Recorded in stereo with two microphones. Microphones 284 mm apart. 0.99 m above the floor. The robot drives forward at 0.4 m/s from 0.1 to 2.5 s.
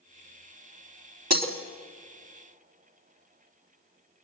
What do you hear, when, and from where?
1.3 s breaking glass: 65° right (ahead or behind), 2.5 m